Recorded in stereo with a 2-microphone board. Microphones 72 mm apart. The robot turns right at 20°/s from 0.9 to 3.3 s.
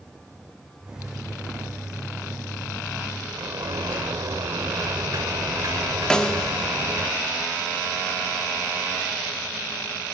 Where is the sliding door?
65° right (ahead or behind), 1.1 m.